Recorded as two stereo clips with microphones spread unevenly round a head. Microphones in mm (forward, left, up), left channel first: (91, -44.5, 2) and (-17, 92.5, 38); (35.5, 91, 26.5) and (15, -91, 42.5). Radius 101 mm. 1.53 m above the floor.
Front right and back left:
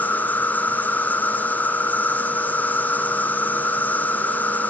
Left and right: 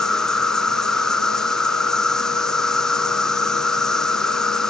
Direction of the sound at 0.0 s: 5° left.